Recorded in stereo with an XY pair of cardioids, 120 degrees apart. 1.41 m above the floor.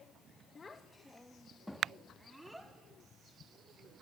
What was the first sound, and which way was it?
A child speaking, 30° left.